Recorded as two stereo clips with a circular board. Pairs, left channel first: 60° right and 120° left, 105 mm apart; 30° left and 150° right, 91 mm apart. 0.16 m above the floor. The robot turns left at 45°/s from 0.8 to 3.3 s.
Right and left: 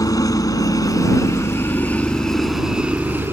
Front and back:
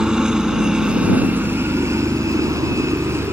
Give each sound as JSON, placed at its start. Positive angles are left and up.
{"t": 0.0, "sound": "a helicopter", "azimuth_deg": -75}